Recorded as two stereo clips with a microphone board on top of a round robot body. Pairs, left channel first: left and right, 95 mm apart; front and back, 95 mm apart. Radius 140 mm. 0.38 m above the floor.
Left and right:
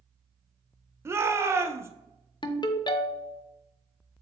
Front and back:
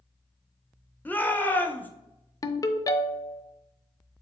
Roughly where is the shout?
Ahead right.